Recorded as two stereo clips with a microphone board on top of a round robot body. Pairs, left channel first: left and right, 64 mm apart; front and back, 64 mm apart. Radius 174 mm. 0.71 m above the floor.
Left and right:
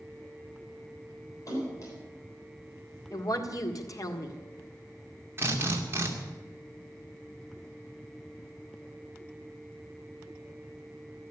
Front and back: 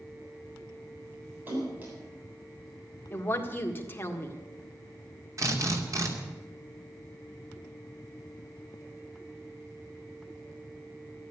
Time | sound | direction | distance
1.5 | a splash | 125° left | 7.5 m
3.1 | a woman speaking | 60° left | 1.9 m
5.4 | a drill | 145° right | 2.5 m